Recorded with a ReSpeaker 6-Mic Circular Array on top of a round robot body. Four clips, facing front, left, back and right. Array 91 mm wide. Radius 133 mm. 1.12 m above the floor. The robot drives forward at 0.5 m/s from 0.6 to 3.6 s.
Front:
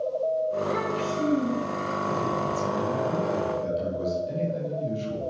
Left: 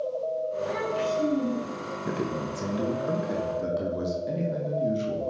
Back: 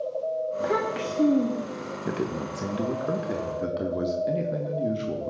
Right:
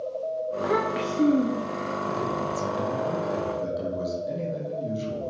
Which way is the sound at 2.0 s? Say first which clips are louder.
Even, front 1 dB; 155° left.